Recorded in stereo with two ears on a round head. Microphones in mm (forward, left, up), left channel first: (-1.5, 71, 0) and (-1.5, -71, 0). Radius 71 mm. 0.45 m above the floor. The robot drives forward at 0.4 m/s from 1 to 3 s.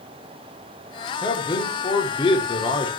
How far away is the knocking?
I don't hear knocking.